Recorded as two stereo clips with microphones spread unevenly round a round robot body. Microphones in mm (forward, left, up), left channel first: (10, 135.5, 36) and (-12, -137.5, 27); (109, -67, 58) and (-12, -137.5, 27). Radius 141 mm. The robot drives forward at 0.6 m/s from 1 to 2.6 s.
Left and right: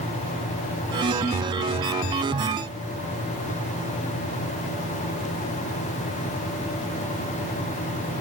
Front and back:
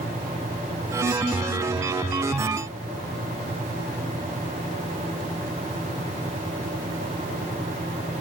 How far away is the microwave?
No microwave in this recording.